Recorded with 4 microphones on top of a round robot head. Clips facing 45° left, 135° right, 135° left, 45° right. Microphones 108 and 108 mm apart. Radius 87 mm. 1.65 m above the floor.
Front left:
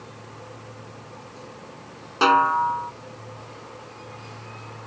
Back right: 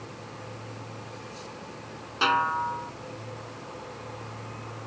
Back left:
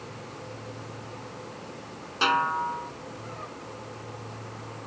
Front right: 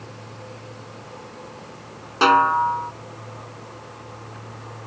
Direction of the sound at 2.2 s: Straight ahead.